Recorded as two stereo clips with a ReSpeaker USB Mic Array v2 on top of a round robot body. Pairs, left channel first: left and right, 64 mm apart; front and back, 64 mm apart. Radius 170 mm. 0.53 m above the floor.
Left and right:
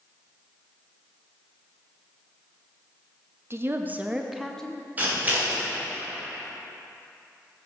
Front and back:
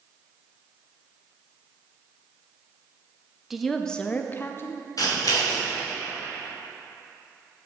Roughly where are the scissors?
Ahead right.